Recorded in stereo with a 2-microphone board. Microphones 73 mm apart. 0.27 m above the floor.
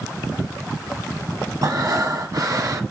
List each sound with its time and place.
1.6 s breathing: 55° right (ahead or behind), 1.5 m